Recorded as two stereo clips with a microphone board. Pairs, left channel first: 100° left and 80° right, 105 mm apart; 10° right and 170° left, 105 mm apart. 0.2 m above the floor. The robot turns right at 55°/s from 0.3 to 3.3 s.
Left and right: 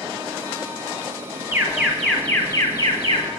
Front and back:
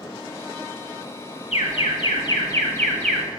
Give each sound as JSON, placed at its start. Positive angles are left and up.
{"t": 1.5, "sound": "an alarm", "azimuth_deg": -15, "distance_m": 1.5}